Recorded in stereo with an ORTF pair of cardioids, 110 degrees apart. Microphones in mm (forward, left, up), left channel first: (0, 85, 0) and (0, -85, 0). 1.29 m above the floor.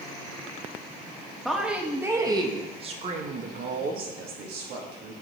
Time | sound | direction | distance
1.4 | a woman speaking | straight ahead | 1.7 m